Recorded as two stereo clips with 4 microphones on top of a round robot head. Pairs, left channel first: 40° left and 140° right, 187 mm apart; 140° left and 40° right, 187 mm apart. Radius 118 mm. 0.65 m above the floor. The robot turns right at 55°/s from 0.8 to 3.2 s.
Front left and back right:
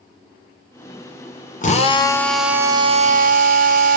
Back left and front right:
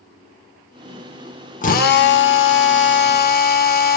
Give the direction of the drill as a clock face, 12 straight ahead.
9 o'clock.